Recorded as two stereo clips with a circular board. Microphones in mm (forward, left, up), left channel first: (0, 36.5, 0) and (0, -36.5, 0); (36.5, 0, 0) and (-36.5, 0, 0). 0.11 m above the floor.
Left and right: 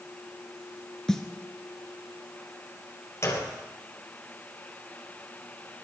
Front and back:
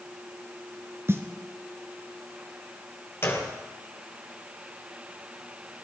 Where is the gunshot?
50° left, 3 m.